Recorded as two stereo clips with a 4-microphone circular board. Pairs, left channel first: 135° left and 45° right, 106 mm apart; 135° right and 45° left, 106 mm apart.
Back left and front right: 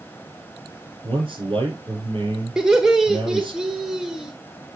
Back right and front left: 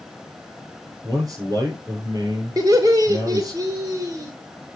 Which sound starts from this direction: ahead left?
Laughter, at 2.6 s.